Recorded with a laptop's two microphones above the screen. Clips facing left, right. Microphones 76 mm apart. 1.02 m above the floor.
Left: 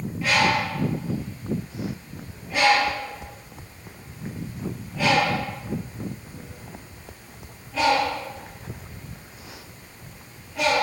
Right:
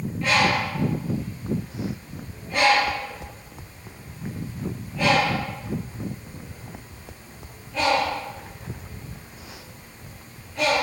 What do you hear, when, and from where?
0.2 s a bird: 5° left (ahead or behind), 7.5 m